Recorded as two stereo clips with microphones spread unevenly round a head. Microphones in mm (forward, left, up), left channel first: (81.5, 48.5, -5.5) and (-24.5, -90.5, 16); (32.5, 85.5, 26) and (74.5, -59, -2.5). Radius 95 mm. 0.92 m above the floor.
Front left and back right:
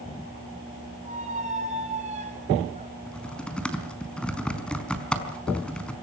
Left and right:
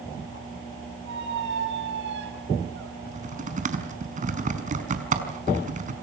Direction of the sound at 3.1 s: 30° right.